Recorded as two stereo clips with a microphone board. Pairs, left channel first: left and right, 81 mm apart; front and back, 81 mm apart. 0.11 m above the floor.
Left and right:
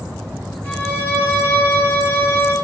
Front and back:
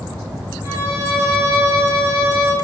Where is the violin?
145° left, 2 m.